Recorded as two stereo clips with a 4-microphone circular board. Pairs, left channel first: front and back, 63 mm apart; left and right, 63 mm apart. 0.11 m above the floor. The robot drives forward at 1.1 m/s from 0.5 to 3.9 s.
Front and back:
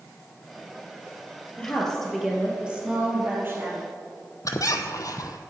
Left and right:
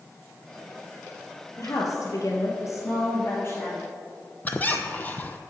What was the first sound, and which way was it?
A woman speaking, 70° left.